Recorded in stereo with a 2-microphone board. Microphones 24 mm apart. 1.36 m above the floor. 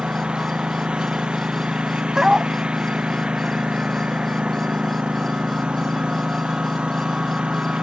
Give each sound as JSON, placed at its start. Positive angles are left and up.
{"t": 0.0, "sound": "a lawn mower", "side_deg": -40}
{"t": 2.1, "sound": "a dog barking", "side_deg": -25}